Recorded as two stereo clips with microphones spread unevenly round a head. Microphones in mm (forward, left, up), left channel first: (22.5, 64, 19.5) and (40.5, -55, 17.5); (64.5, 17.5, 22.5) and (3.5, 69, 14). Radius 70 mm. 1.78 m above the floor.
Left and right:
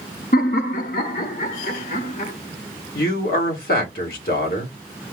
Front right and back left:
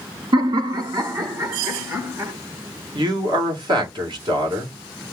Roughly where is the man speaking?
Left.